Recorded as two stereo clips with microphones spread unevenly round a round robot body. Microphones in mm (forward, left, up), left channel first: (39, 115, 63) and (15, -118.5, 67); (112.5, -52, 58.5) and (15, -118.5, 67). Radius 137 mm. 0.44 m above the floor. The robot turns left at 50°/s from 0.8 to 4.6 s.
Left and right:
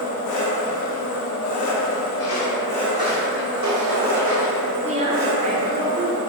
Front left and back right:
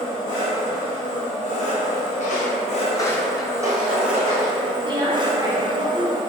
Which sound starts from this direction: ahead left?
Footsteps, at 2.2 s.